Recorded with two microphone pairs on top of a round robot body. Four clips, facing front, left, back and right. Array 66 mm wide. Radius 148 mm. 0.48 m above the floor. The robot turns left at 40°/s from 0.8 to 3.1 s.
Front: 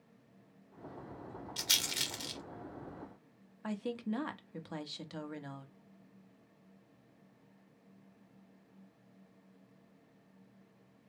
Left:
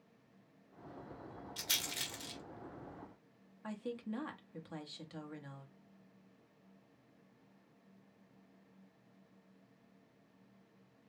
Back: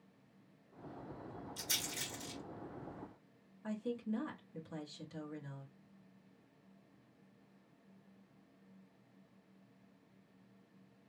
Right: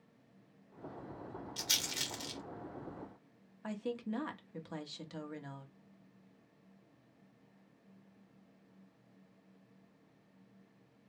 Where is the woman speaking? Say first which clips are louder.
Right 3 dB, front 2 dB; 20° right, 1.1 m.